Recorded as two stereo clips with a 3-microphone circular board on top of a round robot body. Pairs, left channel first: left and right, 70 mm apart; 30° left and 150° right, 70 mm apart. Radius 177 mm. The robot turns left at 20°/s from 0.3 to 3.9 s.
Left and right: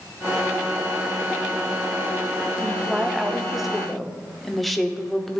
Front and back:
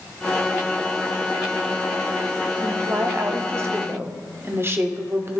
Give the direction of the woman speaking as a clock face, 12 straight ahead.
5 o'clock.